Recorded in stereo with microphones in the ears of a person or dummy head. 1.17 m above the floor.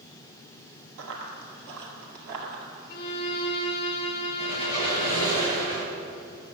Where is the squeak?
20° right (ahead or behind), 4 m.